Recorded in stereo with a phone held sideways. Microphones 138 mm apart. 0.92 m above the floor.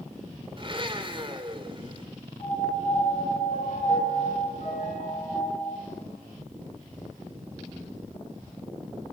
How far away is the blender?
About 2.5 m.